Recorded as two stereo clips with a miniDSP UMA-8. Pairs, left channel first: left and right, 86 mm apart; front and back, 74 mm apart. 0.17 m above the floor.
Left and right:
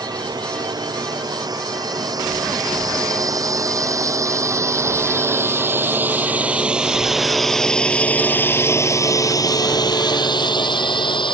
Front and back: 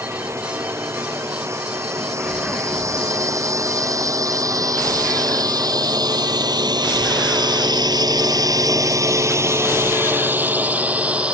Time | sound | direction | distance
0.0 | a drone | 125° right | ?